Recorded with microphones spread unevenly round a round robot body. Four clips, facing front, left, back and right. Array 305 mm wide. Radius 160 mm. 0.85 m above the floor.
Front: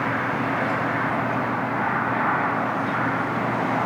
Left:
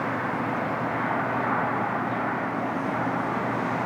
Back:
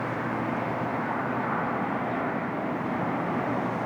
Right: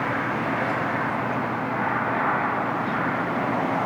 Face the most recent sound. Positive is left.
No sound to turn to.